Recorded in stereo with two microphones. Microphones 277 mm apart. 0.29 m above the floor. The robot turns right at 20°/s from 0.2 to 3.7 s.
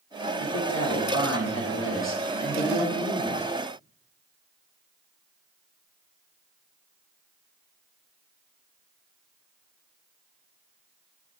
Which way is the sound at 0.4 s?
95° left.